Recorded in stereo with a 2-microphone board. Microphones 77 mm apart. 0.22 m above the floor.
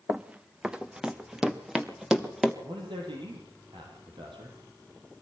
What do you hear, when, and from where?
0.1 s running footsteps: 15° right (ahead or behind), 1.1 m; by 2.5 s 5° right (ahead or behind), 2.5 m
2.6 s a man speaking: 80° right, 7.5 m